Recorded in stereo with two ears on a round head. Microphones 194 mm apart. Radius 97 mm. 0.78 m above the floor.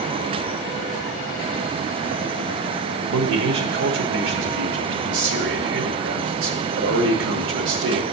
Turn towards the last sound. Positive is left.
turn(degrees=-65)  # may be behind; listen again after turning